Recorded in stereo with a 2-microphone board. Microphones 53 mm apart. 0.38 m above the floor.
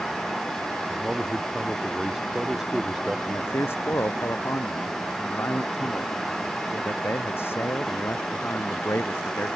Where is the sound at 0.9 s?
10° right (ahead or behind).